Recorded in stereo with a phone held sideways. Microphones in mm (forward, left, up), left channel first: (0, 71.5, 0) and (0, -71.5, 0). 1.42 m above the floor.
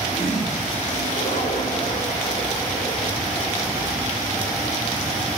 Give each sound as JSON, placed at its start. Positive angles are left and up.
{"t": 0.1, "sound": "a toilet flushing", "side_deg": 55, "distance_m": 4.5}